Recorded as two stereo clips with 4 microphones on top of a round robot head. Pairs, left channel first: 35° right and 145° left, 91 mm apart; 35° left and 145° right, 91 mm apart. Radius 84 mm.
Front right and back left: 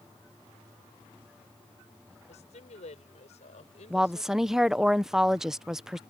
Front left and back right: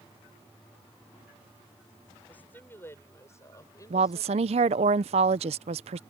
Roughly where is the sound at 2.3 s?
Ahead right.